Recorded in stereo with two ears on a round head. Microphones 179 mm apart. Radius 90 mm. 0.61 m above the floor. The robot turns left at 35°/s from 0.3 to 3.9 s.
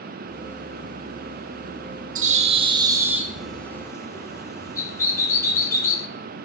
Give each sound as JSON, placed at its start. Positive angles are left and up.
{"t": 2.1, "sound": "a bird", "azimuth_deg": -135, "distance_m": 0.6}